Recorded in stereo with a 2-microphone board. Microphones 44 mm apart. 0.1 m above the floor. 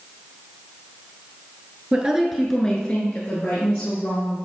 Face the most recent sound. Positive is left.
turn(degrees=60)  # may be behind; listen again after turning